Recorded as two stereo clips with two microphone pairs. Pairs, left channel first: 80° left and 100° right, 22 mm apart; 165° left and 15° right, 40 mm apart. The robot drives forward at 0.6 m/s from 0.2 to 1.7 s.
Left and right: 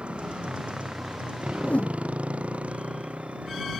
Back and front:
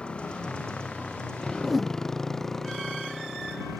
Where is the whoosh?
75° left.